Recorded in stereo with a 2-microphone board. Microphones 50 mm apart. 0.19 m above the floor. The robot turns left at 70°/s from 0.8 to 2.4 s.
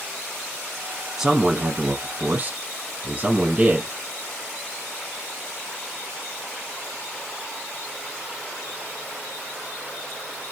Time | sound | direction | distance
1.2 | a man speaking | 15° right (ahead or behind) | 1.2 m